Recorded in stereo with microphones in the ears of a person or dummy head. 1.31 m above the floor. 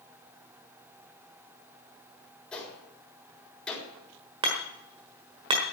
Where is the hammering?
25° right (ahead or behind), 1.3 m.